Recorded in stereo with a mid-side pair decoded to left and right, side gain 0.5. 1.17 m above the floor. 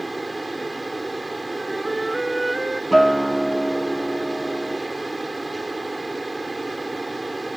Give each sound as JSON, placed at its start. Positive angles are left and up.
{"t": 0.0, "sound": "a fan", "azimuth_deg": -15}
{"t": 1.6, "sound": "a flute", "azimuth_deg": -10}
{"t": 2.9, "sound": "a guitar", "azimuth_deg": -5}